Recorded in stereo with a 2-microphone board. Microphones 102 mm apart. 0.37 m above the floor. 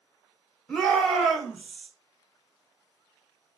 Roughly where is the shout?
Centre.